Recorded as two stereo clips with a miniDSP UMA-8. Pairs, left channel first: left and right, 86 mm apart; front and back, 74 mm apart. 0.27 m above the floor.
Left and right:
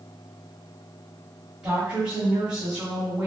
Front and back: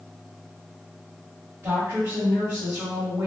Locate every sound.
1.6 s a woman speaking: 160° right, 1.2 m